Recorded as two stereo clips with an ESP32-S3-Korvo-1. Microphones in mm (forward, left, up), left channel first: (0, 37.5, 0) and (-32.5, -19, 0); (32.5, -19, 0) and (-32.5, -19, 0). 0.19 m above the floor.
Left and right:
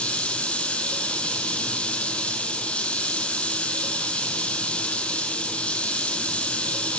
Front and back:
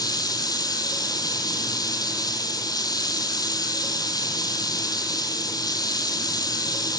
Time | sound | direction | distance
0.0 | running water | 10° right | 1.7 m